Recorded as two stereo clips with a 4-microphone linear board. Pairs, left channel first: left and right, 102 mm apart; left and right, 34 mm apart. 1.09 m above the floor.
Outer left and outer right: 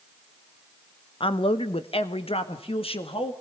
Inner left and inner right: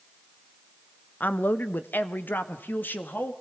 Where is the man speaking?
60° left (ahead or behind), 1.0 m; by 3.3 s 65° left (ahead or behind), 2.5 m.